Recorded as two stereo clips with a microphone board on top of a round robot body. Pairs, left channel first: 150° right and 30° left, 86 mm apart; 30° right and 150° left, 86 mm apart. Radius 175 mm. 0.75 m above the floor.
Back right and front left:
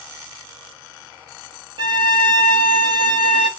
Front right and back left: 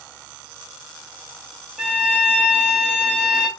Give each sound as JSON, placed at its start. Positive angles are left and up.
{"t": 1.8, "sound": "a violin", "azimuth_deg": 65, "distance_m": 0.5}